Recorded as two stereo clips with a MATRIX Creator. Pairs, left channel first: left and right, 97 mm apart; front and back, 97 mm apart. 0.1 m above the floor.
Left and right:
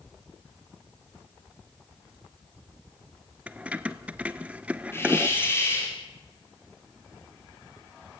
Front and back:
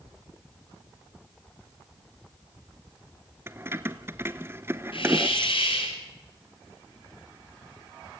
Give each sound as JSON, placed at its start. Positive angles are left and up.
{"t": 3.5, "sound": "keys jangling", "azimuth_deg": -150, "distance_m": 0.8}
{"t": 4.9, "sound": "a hiss", "azimuth_deg": 25, "distance_m": 6.5}